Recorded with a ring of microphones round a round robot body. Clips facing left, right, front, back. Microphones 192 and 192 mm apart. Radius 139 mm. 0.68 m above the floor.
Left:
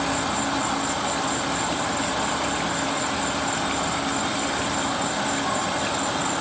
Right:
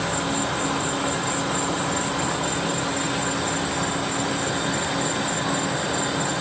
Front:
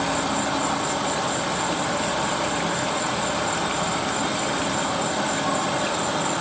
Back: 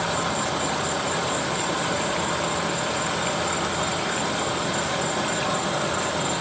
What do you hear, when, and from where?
0.0 s an insect: 100° right, 2 m